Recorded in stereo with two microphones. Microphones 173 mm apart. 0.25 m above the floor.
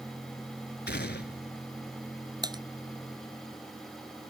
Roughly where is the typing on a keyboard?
Right.